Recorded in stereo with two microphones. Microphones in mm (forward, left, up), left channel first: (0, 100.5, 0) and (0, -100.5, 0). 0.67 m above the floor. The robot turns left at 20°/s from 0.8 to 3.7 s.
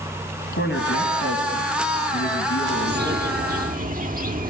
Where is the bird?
60° right (ahead or behind), 1.3 m; by 4.5 s 45° right (ahead or behind), 1.3 m.